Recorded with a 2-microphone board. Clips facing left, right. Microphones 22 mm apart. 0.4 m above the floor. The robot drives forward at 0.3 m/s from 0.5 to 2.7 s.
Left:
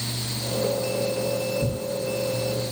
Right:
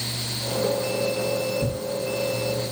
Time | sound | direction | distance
1.6 | tearing paper | 40° right (ahead or behind) | 10 m